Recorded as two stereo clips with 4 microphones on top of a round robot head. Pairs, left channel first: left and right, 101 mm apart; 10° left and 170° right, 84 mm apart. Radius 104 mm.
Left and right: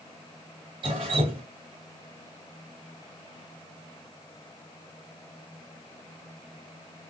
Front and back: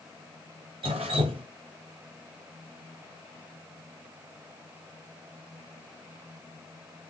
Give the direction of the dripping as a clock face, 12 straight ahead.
5 o'clock.